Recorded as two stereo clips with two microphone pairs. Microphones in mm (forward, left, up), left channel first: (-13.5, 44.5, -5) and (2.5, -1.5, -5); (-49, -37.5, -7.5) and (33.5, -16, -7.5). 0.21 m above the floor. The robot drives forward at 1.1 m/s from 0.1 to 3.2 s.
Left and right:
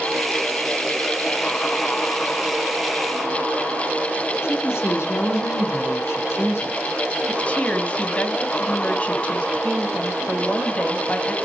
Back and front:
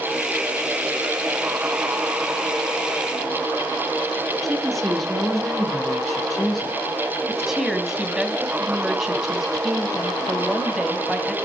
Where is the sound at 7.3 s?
95° left, 1.5 m.